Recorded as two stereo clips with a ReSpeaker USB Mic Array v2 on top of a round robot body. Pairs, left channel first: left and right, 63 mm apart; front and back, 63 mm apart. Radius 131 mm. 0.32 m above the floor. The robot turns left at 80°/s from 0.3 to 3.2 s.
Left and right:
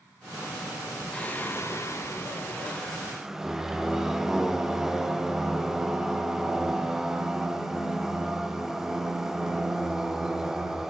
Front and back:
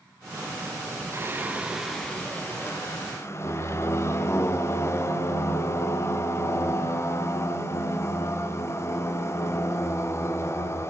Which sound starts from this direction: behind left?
Singing, at 1.1 s.